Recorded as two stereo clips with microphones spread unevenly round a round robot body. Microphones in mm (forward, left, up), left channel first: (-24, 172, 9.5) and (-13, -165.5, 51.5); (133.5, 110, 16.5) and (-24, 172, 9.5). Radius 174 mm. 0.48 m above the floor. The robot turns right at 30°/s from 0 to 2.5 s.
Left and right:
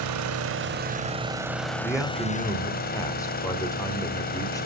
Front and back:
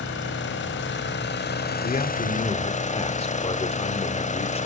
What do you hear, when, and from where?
0.0 s an engine running: 45° right, 1.3 m; by 4.7 s 30° left, 1.3 m
1.8 s a man speaking: straight ahead, 1.9 m; by 4.7 s 20° left, 1.9 m